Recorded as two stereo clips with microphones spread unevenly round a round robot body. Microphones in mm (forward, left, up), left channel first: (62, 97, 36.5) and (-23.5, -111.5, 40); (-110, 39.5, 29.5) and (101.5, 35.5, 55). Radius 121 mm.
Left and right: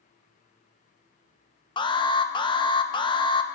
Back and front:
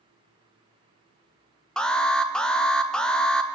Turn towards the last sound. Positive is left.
turn(degrees=110)